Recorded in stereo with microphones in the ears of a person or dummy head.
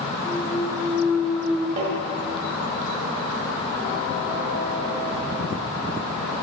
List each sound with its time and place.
0.2 s a clunk: 5° left (ahead or behind), 0.5 m
1.8 s tapping: 50° right (ahead or behind), 2.5 m